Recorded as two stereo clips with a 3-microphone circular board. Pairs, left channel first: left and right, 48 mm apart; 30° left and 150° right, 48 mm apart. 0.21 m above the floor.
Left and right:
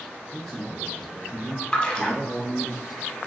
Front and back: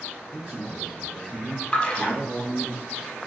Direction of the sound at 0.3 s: 160° left.